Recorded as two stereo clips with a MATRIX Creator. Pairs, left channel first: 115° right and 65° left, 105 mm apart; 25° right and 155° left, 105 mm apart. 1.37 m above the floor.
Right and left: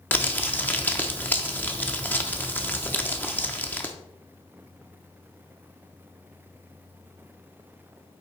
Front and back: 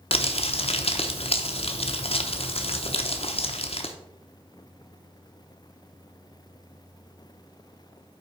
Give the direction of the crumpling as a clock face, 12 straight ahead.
1 o'clock.